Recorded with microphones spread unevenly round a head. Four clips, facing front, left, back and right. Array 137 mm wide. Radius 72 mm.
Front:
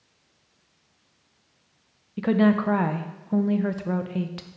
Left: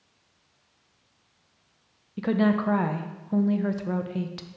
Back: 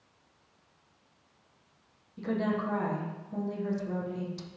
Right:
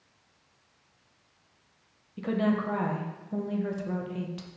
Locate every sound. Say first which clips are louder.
2.2 s a woman speaking: left 4 dB, front 10 dB; 25° left, 0.5 m